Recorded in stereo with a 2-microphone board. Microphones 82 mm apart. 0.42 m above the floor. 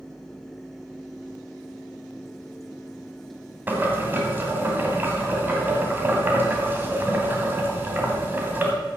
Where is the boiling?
25° right (ahead or behind), 2.0 m.